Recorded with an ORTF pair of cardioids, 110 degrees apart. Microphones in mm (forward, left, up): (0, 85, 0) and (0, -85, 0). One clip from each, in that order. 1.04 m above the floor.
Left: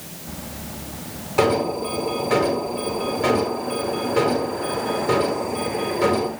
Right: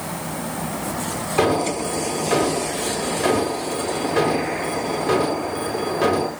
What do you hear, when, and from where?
1.4 s an alarm: 25° right, 7 m